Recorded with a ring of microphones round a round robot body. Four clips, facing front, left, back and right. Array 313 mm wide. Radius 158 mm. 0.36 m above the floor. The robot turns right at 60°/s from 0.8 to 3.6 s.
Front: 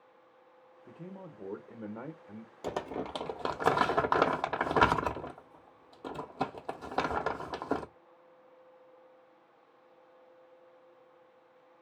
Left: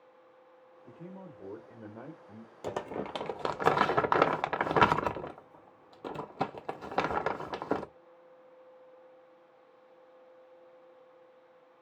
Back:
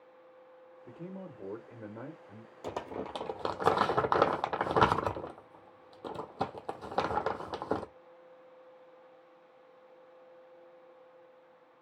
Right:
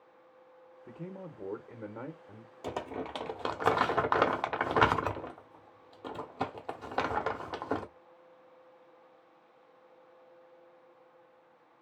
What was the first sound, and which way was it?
A man speaking, 110° right.